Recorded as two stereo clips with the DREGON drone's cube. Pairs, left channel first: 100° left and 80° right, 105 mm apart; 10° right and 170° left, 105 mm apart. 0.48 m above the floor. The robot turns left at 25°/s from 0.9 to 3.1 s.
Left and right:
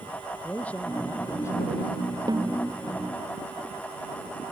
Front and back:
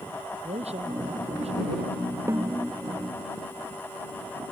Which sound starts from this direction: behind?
A man speaking, at 0.4 s.